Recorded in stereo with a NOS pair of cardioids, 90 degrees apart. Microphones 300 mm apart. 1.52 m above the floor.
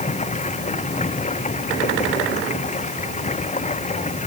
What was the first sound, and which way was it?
Running water, 25° left.